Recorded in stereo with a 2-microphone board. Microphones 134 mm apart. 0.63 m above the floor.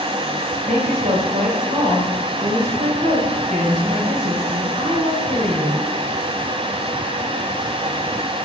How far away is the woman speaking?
About 2.5 m.